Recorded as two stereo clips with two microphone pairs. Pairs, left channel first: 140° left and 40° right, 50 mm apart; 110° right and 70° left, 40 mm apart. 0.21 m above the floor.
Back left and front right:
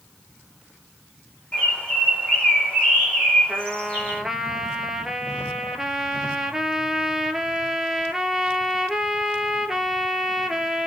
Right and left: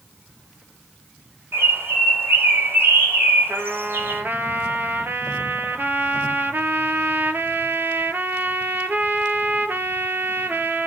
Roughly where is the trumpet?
Ahead left.